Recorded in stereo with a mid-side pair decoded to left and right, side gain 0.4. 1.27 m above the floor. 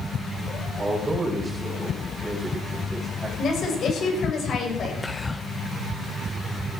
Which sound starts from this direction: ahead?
Whispering, at 5.0 s.